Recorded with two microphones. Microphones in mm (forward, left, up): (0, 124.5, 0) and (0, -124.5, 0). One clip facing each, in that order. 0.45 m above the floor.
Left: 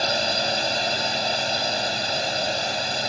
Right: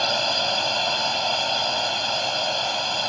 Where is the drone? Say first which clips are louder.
Left 1 dB; 20° left (ahead or behind).